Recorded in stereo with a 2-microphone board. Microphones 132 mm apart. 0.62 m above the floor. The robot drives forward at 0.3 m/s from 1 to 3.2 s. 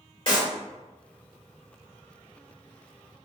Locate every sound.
0.3 s a clap: 40° left (ahead or behind), 1.9 m